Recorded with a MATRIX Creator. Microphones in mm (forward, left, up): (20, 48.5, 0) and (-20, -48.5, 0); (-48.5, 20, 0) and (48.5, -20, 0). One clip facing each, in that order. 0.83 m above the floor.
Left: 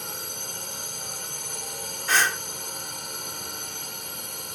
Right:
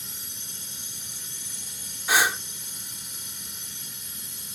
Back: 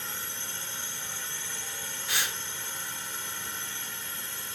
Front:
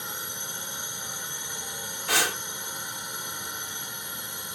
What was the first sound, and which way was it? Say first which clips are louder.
A drone: left 10 dB, front 2 dB; 50° left.